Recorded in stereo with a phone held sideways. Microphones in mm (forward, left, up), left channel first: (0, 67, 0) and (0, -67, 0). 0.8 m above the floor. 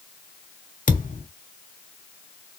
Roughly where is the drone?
No drone in this recording.